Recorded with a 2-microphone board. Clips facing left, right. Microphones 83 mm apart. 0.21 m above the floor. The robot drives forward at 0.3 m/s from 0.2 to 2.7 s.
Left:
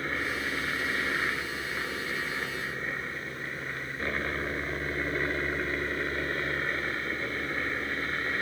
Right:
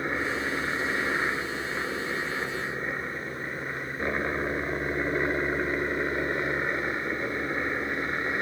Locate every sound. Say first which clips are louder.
0.0 s a helicopter: right 3 dB; 20° right (ahead or behind)